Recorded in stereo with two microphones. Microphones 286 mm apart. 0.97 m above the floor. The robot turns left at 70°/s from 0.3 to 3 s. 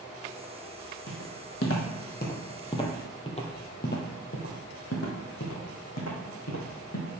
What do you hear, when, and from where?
1.1 s footsteps: 55° left (ahead or behind), 1.9 m; by 7.1 s 65° left (ahead or behind), 3 m